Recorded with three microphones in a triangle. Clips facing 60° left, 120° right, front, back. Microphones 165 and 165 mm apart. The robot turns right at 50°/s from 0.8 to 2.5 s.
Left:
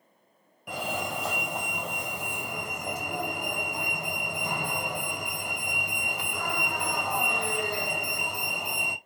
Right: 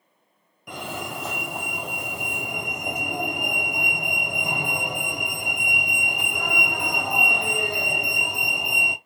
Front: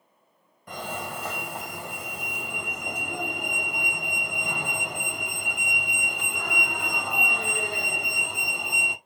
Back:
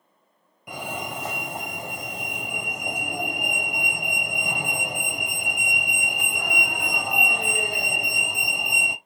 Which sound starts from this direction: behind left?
A fire alarm, at 0.7 s.